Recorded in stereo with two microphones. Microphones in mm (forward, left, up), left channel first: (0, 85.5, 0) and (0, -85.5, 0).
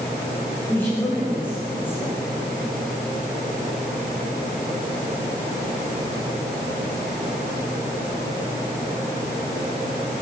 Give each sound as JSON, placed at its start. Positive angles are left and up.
{"t": 0.7, "sound": "a woman speaking", "side_deg": 10, "distance_m": 8.0}